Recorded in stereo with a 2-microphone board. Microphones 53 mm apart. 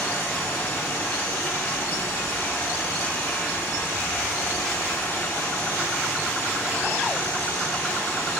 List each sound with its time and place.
0.0 s running water: 75° left (ahead or behind), 1.8 m